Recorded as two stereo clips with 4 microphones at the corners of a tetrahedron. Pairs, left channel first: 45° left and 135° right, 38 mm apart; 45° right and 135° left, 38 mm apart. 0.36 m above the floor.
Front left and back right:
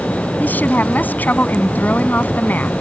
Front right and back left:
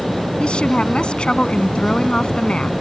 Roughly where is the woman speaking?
Ahead.